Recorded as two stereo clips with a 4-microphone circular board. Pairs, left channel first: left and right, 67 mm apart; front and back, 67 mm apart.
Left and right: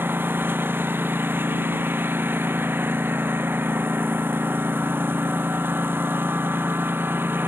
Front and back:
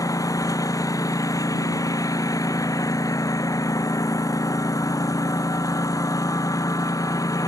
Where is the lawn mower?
30° right.